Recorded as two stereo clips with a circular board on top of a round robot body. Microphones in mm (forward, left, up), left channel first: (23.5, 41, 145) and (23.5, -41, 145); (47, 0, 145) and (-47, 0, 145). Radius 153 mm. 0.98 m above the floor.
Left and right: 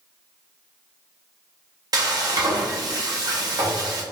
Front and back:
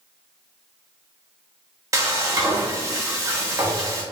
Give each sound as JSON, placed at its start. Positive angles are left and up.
{"t": 1.9, "sound": "frying", "azimuth_deg": -125, "distance_m": 1.0}